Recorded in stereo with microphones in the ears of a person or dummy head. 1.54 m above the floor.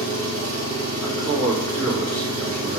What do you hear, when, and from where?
0.0 s an engine running: 20° right (ahead or behind), 5 m
1.0 s a man speaking: 15° right (ahead or behind), 3.5 m